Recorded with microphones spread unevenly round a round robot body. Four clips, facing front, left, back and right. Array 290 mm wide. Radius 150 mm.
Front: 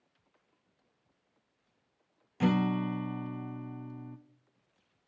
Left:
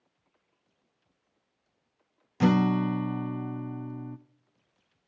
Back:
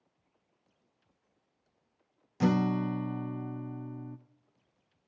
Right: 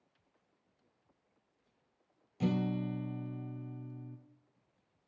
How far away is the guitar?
About 0.6 m.